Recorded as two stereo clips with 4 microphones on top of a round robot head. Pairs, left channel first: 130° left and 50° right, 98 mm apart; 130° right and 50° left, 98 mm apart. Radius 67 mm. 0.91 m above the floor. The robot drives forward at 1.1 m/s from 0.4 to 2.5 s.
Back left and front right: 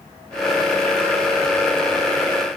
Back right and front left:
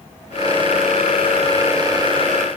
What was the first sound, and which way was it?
Only background noise.